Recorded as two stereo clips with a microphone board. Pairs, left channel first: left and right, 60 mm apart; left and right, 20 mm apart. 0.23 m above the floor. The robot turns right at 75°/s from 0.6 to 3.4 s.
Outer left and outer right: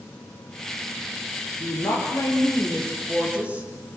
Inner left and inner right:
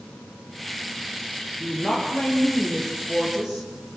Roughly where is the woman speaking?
Left.